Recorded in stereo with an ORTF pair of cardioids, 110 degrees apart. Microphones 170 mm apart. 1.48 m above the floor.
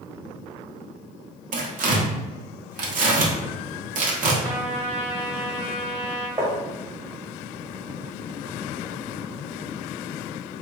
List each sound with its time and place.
1.5 s tearing paper: 50° right, 0.7 m
4.4 s a trumpet: 35° right, 1.2 m
6.4 s tapping: 20° right, 0.9 m